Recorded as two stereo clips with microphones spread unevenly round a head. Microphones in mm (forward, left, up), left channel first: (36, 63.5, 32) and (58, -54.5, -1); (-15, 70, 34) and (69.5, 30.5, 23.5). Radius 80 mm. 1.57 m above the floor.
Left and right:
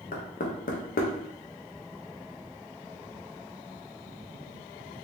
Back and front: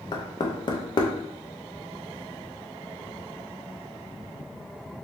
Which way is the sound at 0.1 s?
115° left.